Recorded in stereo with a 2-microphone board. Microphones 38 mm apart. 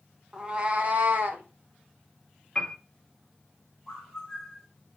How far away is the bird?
About 1.3 m.